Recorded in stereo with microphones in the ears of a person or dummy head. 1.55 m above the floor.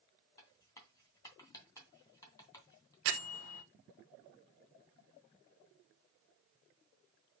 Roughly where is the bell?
Right.